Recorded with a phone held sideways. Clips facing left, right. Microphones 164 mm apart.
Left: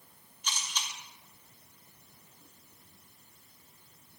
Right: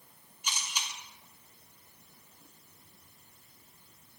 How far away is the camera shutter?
About 2 m.